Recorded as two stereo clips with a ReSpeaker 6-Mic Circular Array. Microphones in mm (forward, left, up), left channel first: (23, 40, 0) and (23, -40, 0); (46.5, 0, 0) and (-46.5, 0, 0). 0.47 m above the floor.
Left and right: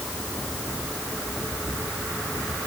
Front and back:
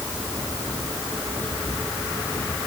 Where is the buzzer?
No buzzer in this recording.